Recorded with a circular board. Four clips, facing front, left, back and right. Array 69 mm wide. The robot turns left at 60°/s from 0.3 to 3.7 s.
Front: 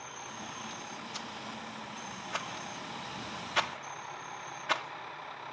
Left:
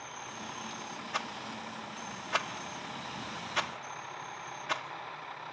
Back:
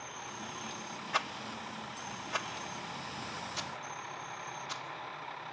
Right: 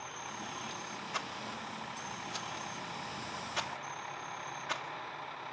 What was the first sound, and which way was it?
A rattle, 165° left.